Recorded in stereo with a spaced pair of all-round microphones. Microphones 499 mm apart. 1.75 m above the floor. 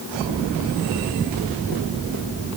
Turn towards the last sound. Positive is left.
No sound to turn to.